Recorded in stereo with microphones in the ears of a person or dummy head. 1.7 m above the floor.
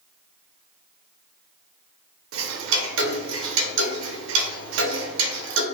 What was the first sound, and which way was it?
Ticking, 80° right.